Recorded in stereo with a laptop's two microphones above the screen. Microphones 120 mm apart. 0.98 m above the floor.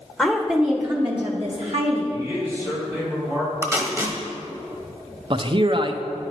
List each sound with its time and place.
0.2 s a woman speaking: centre (ahead or behind), 0.7 m; by 2.0 s 65° right (ahead or behind), 1.1 m
2.1 s a man speaking: 25° right (ahead or behind), 2.5 m
3.6 s tape being pulled: 20° right (ahead or behind), 1.0 m
5.3 s a man speaking: 45° right (ahead or behind), 0.5 m